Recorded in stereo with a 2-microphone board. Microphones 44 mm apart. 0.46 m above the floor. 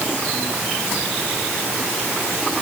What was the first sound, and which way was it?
Only background noise.